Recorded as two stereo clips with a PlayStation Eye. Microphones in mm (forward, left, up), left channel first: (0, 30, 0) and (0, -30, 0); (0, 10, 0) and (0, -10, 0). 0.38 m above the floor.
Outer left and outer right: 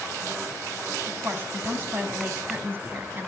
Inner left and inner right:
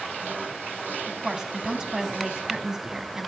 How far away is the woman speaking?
About 3.5 m.